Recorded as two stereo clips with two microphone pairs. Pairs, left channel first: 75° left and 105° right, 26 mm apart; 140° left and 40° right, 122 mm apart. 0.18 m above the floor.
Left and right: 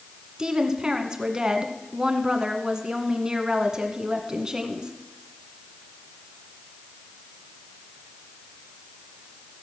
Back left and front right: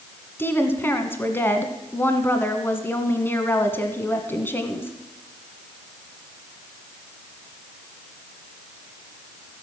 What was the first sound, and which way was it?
A woman speaking, 155° right.